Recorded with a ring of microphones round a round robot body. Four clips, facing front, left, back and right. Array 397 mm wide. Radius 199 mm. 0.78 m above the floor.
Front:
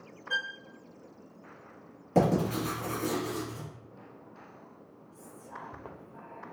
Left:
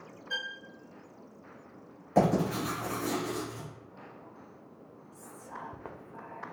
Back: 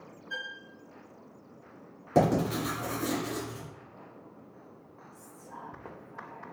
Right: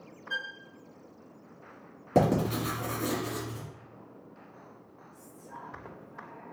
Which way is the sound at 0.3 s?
10° left.